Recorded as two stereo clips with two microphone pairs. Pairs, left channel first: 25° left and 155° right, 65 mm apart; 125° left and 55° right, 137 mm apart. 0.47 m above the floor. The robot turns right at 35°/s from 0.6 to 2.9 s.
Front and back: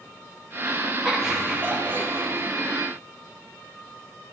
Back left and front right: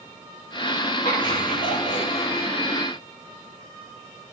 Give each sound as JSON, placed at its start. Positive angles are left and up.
{"t": 1.1, "sound": "laughter", "azimuth_deg": 115, "distance_m": 5.0}